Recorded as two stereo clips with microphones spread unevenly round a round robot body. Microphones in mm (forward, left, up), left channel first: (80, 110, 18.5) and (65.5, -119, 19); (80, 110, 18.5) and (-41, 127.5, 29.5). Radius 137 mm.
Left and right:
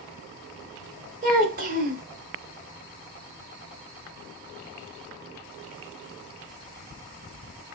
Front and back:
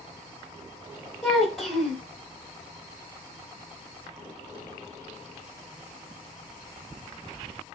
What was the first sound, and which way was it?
A child speaking, 90° right.